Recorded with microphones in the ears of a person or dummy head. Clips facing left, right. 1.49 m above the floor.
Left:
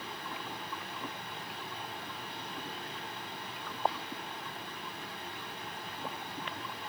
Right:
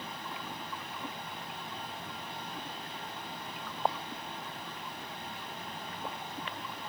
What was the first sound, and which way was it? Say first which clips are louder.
A fan: even; 25° right (ahead or behind).